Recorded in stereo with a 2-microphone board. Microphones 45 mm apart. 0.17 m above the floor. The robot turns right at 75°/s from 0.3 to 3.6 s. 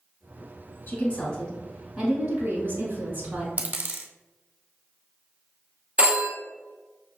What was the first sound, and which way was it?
A woman speaking, 120° left.